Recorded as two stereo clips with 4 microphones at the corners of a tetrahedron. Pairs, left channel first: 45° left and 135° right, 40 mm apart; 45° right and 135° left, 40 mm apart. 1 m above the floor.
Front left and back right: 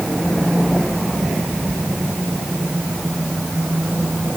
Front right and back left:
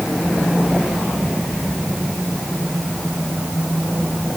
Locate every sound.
Only background noise.